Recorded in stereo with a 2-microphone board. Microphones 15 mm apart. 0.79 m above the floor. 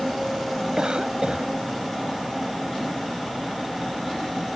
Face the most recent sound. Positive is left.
turn(degrees=-60)  # may be behind; listen again after turning